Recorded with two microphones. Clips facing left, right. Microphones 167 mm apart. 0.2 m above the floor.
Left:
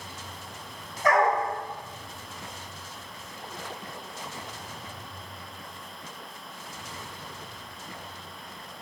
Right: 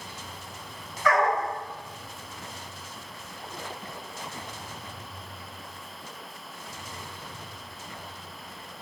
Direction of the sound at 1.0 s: 45° left (ahead or behind).